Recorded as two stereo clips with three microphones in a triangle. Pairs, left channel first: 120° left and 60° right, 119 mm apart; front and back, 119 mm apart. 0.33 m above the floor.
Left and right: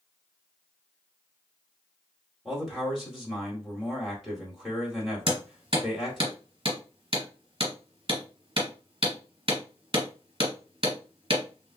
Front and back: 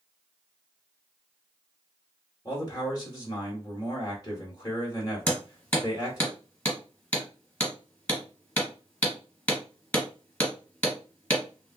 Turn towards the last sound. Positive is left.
turn(degrees=-70)